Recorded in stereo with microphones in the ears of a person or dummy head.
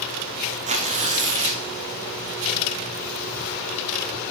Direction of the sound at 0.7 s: 35° right (ahead or behind).